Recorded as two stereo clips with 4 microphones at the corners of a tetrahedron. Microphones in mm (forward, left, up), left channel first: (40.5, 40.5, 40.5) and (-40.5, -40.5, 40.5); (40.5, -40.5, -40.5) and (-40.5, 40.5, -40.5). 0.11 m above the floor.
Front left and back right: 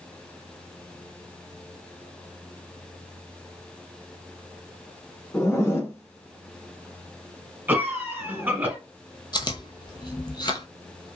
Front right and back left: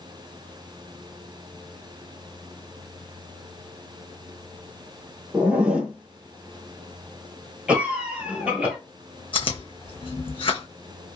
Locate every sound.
5.3 s a zipper: 65° left, 1.1 m
7.7 s a cough: 170° right, 1.3 m
9.3 s chewing: 5° right, 0.7 m